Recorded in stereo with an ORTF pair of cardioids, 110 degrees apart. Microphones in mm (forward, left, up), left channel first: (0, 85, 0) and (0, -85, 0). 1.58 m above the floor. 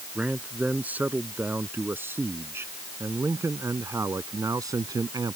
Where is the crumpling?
I don't hear crumpling.